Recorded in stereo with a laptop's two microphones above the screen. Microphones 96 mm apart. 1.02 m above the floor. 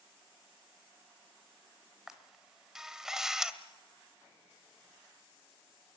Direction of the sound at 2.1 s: 5° right (ahead or behind).